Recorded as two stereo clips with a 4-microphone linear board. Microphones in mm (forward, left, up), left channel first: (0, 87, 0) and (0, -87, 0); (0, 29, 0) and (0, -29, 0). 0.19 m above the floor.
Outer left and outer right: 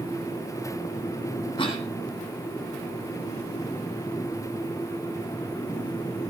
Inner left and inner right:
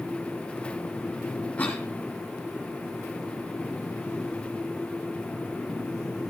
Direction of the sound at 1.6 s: 30° left (ahead or behind).